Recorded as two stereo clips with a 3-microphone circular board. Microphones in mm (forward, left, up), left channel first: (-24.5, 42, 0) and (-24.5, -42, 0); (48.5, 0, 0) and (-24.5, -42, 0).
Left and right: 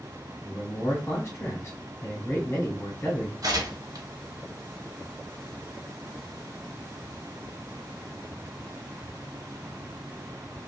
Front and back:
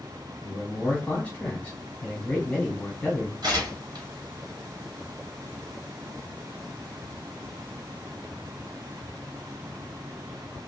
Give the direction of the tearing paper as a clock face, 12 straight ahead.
4 o'clock.